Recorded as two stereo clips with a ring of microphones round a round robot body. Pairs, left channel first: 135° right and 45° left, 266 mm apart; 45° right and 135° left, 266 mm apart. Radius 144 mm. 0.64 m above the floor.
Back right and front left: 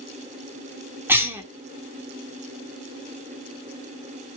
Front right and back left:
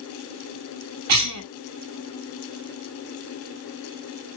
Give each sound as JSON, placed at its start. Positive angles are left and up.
{"t": 1.1, "sound": "a cough", "azimuth_deg": 125, "distance_m": 1.8}